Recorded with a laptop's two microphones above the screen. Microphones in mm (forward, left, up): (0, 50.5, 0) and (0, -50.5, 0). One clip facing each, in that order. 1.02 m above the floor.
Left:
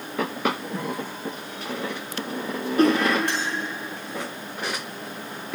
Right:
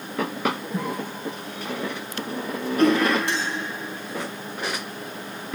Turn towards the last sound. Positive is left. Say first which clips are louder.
# right 1 dB
turn(degrees=60)  # may be behind; listen again after turning